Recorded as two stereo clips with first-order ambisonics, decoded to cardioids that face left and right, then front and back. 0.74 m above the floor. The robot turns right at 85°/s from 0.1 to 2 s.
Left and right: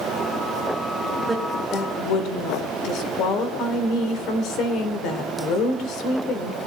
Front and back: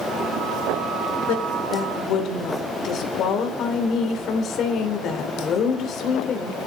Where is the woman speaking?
10° right, 3 m; by 6.7 s 50° left, 3 m.